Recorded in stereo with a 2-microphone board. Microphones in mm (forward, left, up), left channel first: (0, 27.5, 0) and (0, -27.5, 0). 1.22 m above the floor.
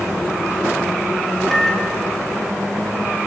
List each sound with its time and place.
1.5 s a microwave: 10° left (ahead or behind), 5.5 m